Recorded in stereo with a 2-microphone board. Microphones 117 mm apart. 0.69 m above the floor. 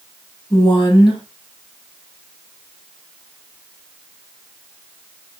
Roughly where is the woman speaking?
Left.